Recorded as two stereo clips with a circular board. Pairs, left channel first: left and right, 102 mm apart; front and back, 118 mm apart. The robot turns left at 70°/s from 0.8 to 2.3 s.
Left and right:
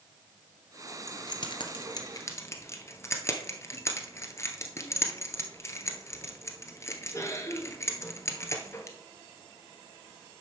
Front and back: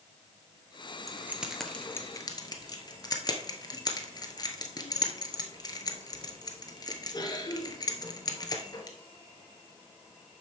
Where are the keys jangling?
125° left, 1.3 m; by 9.0 s 40° left, 1.3 m.